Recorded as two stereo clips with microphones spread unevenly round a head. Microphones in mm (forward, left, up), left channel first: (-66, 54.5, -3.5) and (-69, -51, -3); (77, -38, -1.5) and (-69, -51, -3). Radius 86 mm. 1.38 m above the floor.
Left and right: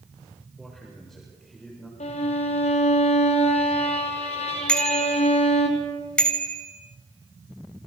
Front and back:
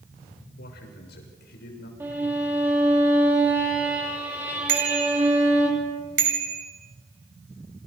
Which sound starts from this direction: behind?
A bicycle bell, at 4.7 s.